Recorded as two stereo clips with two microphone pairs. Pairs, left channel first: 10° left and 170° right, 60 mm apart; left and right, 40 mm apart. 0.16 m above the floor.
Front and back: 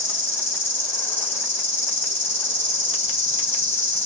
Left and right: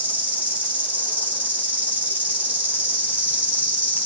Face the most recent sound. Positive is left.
turn(degrees=-40)